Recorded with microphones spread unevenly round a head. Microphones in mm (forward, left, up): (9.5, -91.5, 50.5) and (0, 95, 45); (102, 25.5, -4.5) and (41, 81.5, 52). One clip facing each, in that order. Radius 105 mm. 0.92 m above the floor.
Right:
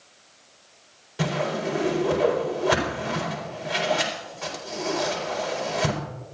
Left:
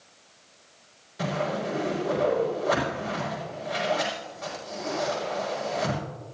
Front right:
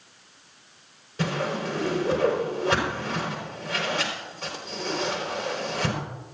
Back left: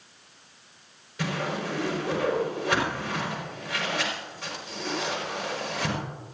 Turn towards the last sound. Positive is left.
turn(degrees=-85)